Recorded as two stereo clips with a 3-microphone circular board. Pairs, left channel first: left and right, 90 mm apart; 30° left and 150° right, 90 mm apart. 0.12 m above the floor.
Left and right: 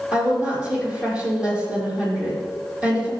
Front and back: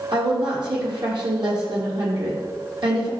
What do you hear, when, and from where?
0.1 s a woman speaking: 165° right, 4.5 m